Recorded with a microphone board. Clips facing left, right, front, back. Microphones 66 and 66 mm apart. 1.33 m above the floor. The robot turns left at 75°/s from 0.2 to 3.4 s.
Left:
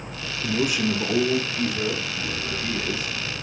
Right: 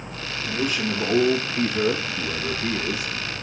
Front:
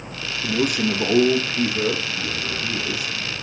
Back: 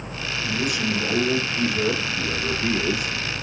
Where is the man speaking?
35° left, 0.7 m; by 3.1 s 165° right, 0.7 m.